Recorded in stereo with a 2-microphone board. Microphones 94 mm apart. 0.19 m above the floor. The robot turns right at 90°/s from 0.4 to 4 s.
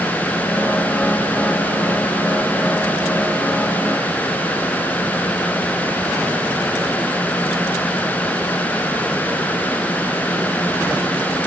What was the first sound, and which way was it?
Only background noise.